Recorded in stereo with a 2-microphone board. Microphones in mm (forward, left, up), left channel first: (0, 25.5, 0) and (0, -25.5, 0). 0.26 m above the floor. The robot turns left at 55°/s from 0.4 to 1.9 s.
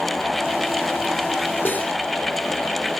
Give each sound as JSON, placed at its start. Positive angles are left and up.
{"t": 1.6, "sound": "cutlery clinking", "side_deg": 35, "distance_m": 3.0}